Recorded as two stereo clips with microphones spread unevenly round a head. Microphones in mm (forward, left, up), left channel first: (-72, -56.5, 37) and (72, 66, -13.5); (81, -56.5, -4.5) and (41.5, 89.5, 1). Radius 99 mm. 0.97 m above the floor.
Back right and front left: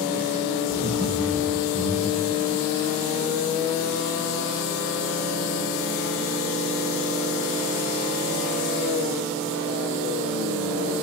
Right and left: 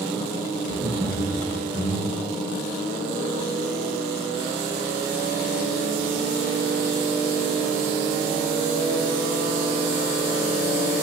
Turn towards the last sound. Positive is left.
turn(degrees=145)